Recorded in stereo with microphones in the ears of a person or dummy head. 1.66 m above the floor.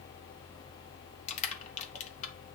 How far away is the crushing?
About 1.0 m.